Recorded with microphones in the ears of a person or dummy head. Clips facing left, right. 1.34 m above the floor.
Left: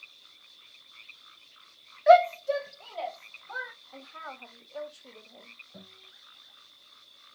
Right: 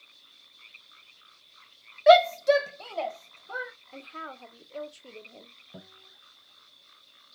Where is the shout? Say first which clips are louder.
Right 2 dB; 45° right (ahead or behind), 0.7 m; by 3.7 s 30° right (ahead or behind), 1.2 m.